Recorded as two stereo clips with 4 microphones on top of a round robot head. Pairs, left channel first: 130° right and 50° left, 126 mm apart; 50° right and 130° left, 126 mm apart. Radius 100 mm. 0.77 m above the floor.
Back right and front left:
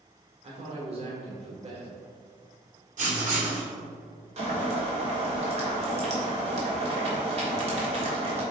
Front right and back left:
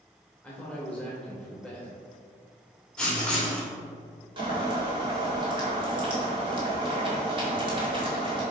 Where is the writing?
35° left, 1.8 m.